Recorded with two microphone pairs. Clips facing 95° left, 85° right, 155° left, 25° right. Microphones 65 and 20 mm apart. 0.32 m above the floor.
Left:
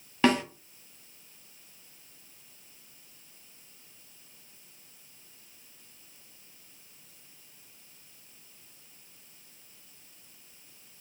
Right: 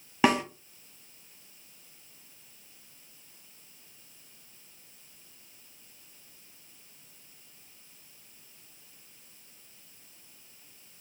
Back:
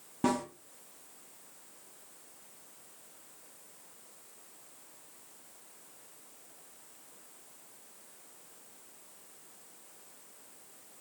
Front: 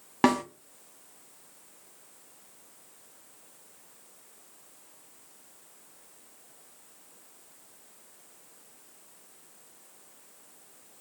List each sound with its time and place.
0.2 s a snare drum: 15° right, 0.7 m